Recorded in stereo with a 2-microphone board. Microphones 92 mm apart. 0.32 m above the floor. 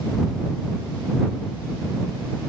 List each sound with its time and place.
Only background noise.